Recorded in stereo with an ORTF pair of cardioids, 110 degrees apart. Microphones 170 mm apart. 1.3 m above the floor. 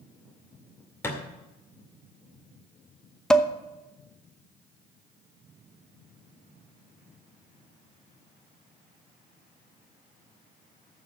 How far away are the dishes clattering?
About 0.8 m.